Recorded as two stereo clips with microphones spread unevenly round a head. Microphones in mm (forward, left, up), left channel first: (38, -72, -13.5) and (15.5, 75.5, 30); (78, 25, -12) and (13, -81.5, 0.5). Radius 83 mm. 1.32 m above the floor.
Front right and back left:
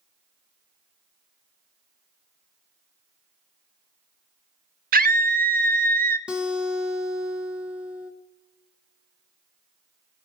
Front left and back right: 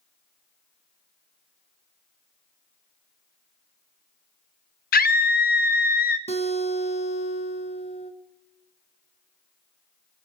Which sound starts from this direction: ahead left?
A scream, at 4.9 s.